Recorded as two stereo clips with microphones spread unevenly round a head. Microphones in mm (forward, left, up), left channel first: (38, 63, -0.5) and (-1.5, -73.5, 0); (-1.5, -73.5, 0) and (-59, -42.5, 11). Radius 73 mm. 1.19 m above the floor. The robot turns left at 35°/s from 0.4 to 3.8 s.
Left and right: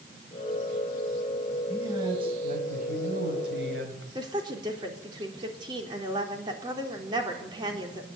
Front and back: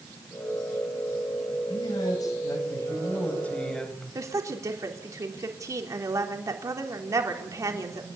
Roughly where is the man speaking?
Ahead right.